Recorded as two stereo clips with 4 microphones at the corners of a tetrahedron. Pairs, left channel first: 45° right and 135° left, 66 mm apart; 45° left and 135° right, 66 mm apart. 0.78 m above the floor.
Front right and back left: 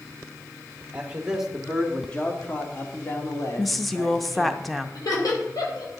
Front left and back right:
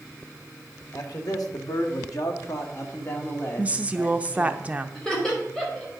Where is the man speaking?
65° left, 1.6 m; by 4.6 s 20° right, 2.5 m.